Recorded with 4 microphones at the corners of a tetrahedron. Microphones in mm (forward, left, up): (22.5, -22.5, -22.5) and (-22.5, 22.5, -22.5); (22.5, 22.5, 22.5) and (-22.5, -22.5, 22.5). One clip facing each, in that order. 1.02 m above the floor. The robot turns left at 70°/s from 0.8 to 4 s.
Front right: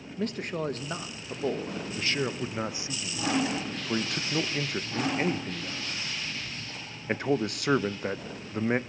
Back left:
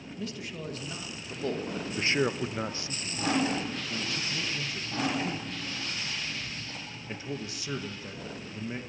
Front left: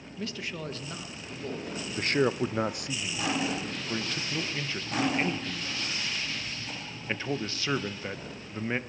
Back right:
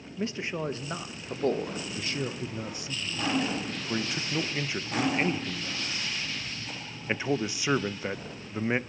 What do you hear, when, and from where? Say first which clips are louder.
0.2 s a man speaking: front right 8 dB, back right 5 dB; 70° right, 0.9 m; by 1.8 s 140° right, 0.9 m
1.9 s a man speaking: back left 3 dB, front left 10 dB; 85° left, 0.5 m; by 8.8 s 60° right, 0.5 m